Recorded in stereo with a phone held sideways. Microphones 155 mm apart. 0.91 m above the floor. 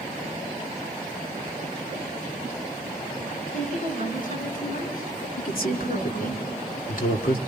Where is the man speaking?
65° left (ahead or behind), 2.5 m.